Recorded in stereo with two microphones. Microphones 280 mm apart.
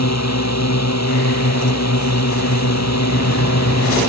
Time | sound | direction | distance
0.0 | a drone | 70° left (ahead or behind) | ?